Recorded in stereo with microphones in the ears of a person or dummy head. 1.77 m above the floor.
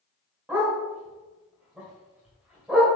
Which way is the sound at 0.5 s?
5° right (ahead or behind).